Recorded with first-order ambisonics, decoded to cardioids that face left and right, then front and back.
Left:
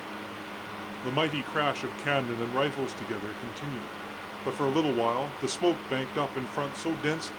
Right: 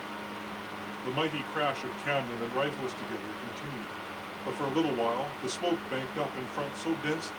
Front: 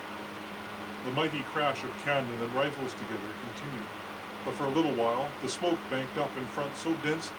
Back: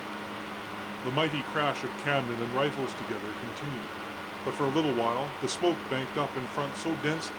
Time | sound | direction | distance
1.0 | a man speaking | 125° left | 0.7 m